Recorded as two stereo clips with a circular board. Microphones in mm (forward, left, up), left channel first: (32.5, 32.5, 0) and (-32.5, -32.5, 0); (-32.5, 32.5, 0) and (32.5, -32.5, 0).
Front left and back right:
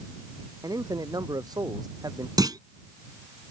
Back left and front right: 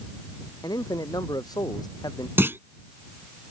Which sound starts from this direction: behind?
A man speaking, at 0.6 s.